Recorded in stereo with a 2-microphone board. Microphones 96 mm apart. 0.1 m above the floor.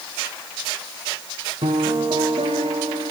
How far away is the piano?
About 4 m.